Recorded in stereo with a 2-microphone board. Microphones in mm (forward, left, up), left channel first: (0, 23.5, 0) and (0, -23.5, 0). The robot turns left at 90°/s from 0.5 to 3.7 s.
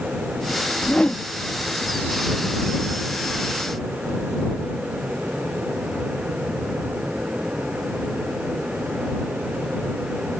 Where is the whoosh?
50° left; by 1.3 s 10° left.